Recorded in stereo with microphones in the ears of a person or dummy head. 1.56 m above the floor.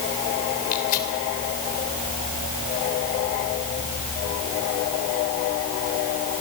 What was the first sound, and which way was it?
Tearing paper, 50° left (ahead or behind).